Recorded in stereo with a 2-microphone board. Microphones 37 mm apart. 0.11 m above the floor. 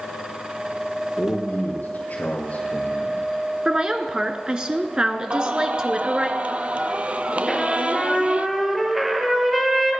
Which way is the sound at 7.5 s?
5° right (ahead or behind).